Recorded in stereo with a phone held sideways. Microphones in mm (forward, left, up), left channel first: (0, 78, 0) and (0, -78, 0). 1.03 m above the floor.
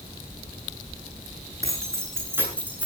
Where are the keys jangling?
20° right (ahead or behind), 9.5 m; by 2.9 s 10° right (ahead or behind), 9 m.